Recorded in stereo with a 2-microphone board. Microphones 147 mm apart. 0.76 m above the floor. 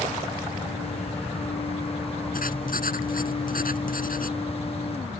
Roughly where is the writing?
Left.